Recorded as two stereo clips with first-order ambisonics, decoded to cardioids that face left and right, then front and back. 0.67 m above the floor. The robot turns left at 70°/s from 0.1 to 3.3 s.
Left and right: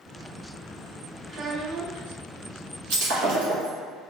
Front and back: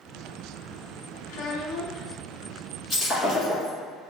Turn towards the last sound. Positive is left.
turn(degrees=-110)